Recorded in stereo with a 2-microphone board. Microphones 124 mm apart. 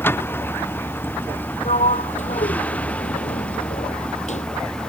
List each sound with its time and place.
0.0 s a vehicle: 15° left (ahead or behind); by 4.9 s 5° left (ahead or behind)
1.6 s a sliding door: 60° left (ahead or behind)